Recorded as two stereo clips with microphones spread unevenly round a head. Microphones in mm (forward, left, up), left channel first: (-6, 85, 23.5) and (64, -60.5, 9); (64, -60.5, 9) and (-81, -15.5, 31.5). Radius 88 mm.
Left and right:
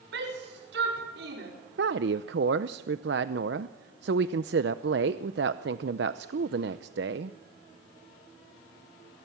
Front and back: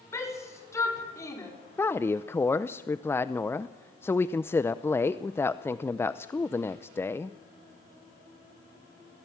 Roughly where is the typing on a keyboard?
No typing on a keyboard in this recording.